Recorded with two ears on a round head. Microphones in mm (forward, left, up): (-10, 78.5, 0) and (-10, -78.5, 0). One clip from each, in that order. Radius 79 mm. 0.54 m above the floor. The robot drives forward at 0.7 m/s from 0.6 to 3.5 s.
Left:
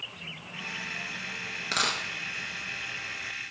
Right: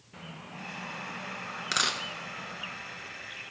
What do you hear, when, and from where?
1.7 s a dropped coin: 20° right (ahead or behind), 1.0 m; by 2.0 s 25° right (ahead or behind), 0.8 m